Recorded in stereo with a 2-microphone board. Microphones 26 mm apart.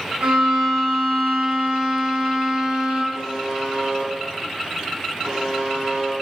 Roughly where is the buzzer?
Right.